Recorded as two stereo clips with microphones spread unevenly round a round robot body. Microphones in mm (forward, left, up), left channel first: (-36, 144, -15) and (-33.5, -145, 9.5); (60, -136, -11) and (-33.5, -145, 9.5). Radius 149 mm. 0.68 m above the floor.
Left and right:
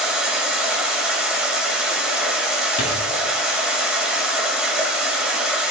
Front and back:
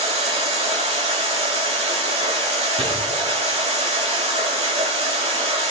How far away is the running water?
About 1.9 m.